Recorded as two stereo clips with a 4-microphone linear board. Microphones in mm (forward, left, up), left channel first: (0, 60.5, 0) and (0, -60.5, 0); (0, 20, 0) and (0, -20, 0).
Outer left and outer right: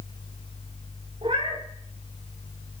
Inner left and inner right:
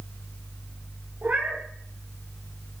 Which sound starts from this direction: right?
A cat meowing, at 1.2 s.